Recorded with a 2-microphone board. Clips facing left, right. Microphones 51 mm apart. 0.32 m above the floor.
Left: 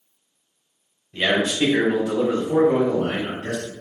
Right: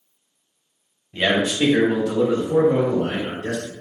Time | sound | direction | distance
1.1 | a man speaking | 10° right (ahead or behind) | 1.1 m